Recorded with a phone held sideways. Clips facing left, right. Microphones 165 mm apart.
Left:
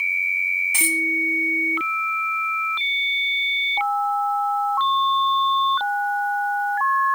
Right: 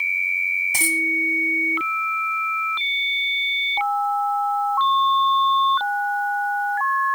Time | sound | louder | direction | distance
0.7 | a dropped coin | even | 40° right (ahead or behind) | 1.7 m